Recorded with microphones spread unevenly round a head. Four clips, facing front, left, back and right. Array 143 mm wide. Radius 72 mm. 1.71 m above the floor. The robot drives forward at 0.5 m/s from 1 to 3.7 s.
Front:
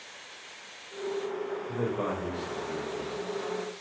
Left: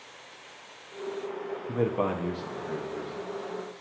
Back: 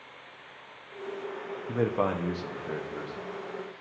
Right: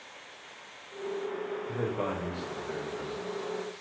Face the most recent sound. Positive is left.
turn(degrees=170)